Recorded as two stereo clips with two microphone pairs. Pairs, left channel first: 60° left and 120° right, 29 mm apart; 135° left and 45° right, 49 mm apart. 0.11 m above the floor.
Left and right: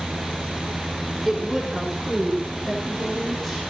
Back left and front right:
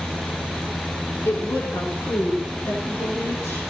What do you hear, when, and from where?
1.2 s a woman speaking: 145° left, 8.5 m; by 3.6 s 135° left, 8.5 m